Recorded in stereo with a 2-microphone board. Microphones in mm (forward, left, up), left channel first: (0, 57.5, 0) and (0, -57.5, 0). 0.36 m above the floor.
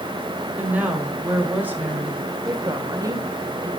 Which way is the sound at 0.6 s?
15° right (ahead or behind).